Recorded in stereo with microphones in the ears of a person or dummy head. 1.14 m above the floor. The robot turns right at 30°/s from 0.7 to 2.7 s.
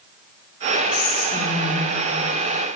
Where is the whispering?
55° left (ahead or behind), 3.5 m; by 2.8 s 5° left (ahead or behind), 3.5 m.